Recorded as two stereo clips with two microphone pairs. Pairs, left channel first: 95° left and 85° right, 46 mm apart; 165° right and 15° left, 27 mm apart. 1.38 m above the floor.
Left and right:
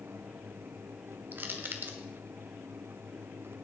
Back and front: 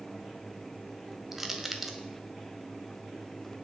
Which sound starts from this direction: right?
Crushing, at 1.3 s.